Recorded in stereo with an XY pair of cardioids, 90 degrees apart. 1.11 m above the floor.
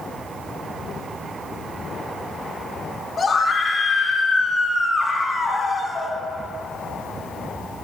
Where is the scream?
40° left, 2.5 m.